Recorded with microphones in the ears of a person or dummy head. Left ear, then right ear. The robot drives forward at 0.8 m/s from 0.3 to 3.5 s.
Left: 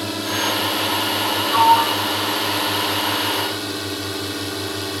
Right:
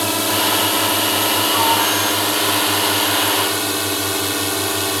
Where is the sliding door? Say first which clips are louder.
Left 6 dB; 25° left (ahead or behind); by 4.7 s 20° left (ahead or behind).